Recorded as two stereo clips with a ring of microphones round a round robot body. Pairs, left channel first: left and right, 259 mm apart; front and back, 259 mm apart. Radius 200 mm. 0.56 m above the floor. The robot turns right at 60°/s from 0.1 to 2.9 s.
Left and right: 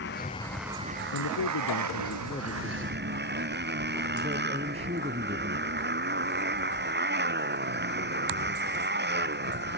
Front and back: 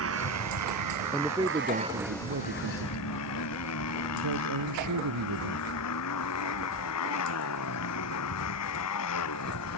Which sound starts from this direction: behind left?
A motorcycle, at 0.0 s.